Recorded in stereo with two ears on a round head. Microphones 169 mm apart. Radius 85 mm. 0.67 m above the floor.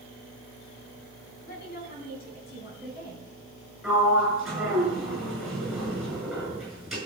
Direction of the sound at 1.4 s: 55° left (ahead or behind).